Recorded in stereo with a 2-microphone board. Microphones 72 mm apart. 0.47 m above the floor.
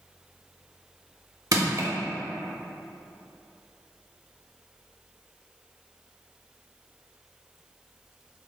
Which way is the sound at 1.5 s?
55° right (ahead or behind).